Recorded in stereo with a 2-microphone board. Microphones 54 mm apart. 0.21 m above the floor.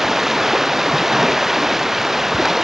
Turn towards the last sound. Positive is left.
turn(degrees=-5)  # may be behind; listen again after turning